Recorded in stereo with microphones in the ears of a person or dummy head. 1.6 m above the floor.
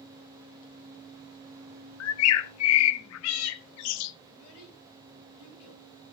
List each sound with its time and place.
2.0 s a bird: 70° left (ahead or behind), 0.7 m
4.3 s a child speaking: 75° left (ahead or behind), 5.5 m